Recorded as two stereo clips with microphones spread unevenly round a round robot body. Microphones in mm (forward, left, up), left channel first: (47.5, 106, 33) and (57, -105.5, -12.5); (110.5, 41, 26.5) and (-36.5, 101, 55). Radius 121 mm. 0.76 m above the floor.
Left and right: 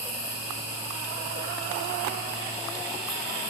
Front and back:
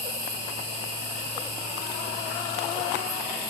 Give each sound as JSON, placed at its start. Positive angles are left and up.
{"t": 0.0, "sound": "an insect", "azimuth_deg": -175, "distance_m": 4.0}